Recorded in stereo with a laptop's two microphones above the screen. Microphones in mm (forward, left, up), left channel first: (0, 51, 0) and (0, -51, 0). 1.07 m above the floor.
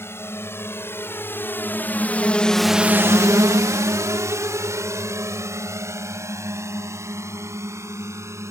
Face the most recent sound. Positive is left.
turn(degrees=-25)  # may be behind; listen again after turning